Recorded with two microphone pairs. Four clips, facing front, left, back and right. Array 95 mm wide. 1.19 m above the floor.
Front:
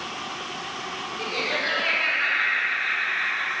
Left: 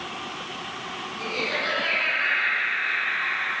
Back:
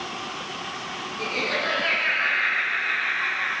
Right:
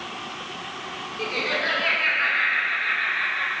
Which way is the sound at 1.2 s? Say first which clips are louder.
Right 2 dB, back 2 dB; 70° right.